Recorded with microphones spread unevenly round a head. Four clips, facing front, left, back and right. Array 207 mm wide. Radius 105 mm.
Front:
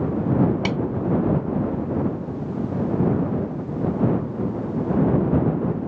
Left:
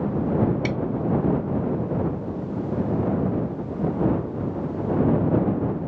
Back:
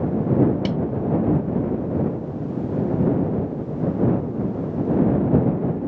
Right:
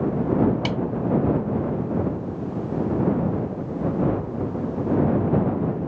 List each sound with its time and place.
0.7 s a snare drum: 15° right